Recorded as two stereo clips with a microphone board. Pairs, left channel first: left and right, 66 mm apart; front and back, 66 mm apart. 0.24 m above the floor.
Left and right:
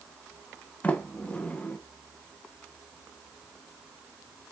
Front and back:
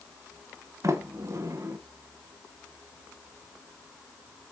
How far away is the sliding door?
About 0.7 m.